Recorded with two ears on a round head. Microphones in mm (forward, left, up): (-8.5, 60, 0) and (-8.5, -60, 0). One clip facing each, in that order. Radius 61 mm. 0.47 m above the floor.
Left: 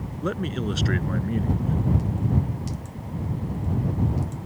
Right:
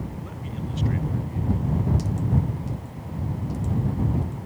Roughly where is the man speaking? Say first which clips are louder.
Left 8 dB; left.